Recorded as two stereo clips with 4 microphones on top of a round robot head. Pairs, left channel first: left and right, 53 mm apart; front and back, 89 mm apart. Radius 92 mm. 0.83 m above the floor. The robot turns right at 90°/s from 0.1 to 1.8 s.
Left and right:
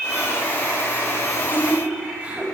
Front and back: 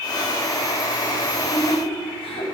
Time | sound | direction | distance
1.3 | laughter | 70° right | 4.5 m